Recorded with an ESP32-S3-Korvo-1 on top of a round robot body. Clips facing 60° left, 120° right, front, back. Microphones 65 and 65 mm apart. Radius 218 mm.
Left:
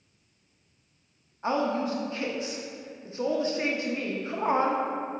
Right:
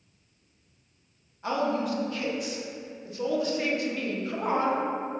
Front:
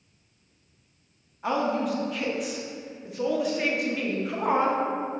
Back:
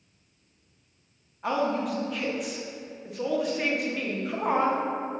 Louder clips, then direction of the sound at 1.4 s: Even, front 1 dB; 90° left.